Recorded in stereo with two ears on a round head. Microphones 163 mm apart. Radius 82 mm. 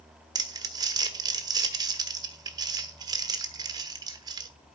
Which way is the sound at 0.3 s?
20° right (ahead or behind).